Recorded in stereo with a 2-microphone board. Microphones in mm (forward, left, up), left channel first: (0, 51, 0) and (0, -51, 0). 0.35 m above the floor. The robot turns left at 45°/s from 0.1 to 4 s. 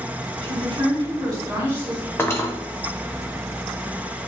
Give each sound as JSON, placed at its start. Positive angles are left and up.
{"t": 0.4, "sound": "a woman speaking", "azimuth_deg": -95, "distance_m": 2.0}
{"t": 2.2, "sound": "cutlery clinking", "side_deg": 25, "distance_m": 0.8}